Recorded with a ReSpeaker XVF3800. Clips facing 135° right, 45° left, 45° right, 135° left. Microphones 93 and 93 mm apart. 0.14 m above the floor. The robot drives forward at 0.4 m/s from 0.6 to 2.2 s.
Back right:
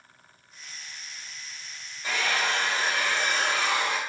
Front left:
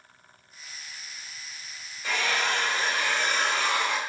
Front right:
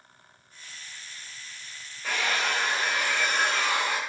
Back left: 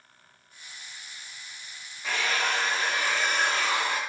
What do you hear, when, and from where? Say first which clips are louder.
2.0 s a hair dryer: even, even; 160° left, 1.6 m; by 4.0 s 165° left, 1.6 m